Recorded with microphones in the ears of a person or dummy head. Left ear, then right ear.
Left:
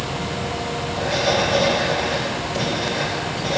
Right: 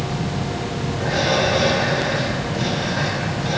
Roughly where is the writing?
Centre.